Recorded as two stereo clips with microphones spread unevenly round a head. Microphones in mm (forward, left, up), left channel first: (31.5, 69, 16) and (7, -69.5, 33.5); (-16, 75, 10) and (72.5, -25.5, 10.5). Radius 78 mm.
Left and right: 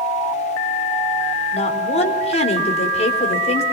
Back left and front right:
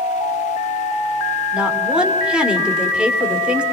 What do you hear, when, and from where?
1.5 s a woman speaking: 35° left, 3.5 m